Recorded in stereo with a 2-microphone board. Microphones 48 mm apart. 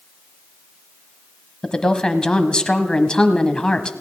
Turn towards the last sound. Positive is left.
turn(degrees=20)  # may be behind; listen again after turning